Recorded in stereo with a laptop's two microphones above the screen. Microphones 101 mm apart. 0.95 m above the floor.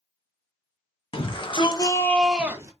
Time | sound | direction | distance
1.1 | a shout | 55° left (ahead or behind) | 1.4 m